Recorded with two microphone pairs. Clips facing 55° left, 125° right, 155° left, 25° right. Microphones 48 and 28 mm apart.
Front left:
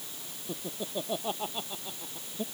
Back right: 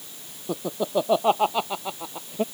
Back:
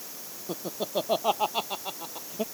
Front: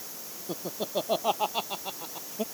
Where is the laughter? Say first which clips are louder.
Back right 11 dB, back 1 dB; 120° right.